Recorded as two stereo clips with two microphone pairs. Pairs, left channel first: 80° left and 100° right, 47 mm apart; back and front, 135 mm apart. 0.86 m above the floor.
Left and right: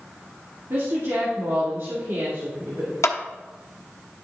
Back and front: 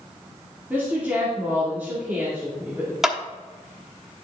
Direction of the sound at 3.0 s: 90° left.